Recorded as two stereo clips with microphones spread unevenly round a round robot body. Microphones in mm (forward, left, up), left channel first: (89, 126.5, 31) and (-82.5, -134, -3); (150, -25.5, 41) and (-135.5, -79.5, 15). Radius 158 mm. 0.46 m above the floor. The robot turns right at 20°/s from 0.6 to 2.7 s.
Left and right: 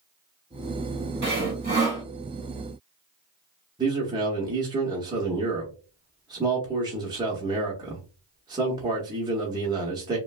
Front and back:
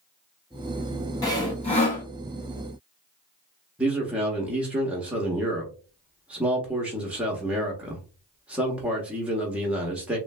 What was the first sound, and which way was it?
Sawing, 70° right.